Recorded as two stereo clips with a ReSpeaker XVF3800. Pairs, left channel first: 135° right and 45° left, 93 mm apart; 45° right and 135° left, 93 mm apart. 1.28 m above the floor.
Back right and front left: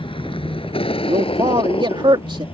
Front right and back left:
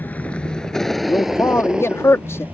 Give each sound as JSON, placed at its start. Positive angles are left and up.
{"t": 0.0, "sound": "a vehicle", "azimuth_deg": -115}
{"t": 1.1, "sound": "a man speaking", "azimuth_deg": 15}